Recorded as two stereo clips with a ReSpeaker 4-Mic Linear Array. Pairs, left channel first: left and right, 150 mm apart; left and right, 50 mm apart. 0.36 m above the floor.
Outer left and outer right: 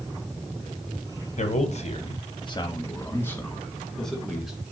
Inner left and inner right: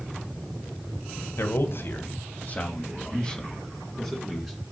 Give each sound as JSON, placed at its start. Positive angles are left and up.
{"t": 1.4, "sound": "a man speaking", "side_deg": 60, "distance_m": 1.9}